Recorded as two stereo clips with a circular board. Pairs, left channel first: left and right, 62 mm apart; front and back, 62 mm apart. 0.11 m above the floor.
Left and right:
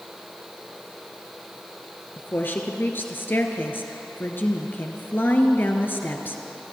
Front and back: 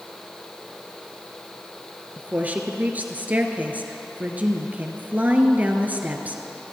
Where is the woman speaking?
130° left, 1.5 m.